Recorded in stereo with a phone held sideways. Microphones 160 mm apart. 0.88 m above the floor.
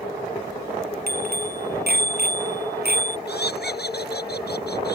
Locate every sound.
1.1 s a bicycle bell: 70° right (ahead or behind); by 3.2 s 80° right
3.3 s laughter: 80° left